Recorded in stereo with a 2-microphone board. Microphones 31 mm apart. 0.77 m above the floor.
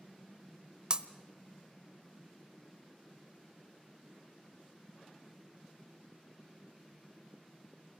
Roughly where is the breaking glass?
Right.